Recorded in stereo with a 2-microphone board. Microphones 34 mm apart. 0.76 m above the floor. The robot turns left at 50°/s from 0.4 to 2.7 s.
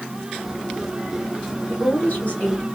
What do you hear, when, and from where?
1.7 s a woman speaking: 85° left, 2.0 m; by 2.6 s 35° left, 2.0 m